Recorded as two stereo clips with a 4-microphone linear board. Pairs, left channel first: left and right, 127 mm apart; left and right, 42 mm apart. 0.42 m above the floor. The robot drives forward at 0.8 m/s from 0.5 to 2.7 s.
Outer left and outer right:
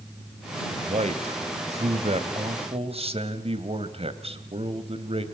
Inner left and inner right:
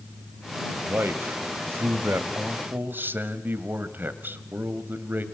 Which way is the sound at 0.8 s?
55° right (ahead or behind).